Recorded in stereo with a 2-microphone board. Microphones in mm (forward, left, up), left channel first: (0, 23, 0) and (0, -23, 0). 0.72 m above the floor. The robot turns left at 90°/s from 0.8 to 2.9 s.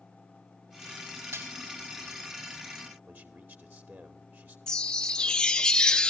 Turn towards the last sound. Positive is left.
turn(degrees=15)  # may be behind; listen again after turning